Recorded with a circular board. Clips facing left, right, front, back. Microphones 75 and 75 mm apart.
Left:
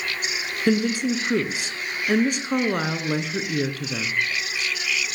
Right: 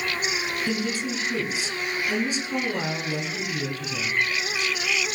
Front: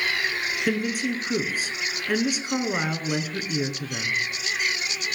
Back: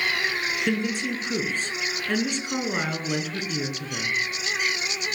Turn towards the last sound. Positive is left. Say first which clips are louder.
# left 11 dB, front 2 dB
turn(degrees=80)